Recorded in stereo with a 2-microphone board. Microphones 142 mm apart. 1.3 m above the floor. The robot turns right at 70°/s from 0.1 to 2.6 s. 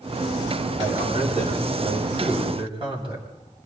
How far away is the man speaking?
About 7.5 m.